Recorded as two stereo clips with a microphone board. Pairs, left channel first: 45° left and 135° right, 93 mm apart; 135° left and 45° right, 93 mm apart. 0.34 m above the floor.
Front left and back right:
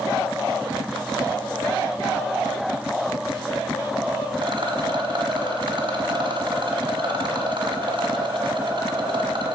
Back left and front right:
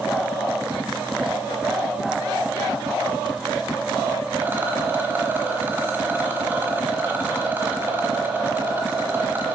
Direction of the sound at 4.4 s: 115° right.